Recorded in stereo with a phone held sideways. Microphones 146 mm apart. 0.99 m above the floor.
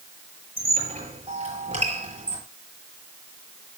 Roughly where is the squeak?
Right.